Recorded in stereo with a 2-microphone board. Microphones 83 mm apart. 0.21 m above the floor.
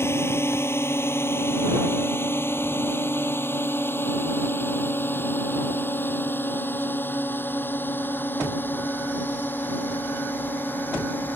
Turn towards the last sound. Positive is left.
turn(degrees=20)  # may be behind; listen again after turning